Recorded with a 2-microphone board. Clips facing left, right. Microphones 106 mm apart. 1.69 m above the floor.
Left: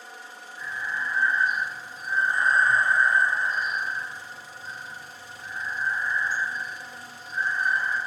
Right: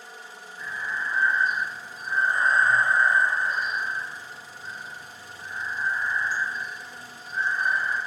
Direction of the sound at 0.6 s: 65° right (ahead or behind).